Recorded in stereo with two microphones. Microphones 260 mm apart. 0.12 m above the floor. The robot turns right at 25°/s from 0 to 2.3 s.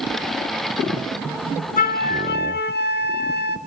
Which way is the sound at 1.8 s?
35° left (ahead or behind).